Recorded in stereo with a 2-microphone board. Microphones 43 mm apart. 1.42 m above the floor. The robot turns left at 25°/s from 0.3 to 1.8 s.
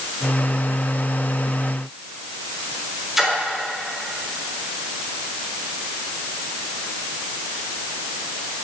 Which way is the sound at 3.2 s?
5° right (ahead or behind).